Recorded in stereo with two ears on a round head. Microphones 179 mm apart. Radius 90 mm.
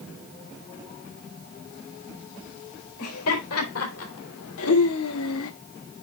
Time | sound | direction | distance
3.0 | laughter | 85° left | 4.5 m